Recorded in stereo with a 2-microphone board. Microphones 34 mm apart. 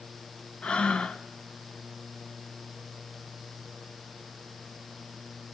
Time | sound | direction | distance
0.6 | breathing | 35° left (ahead or behind) | 0.6 m